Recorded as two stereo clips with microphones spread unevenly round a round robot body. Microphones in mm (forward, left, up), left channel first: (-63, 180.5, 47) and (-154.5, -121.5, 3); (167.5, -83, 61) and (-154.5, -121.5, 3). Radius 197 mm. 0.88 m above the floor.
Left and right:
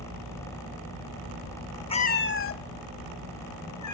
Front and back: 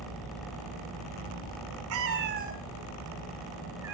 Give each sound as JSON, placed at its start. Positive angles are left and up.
{"t": 1.9, "sound": "a cat meowing", "azimuth_deg": 135, "distance_m": 0.9}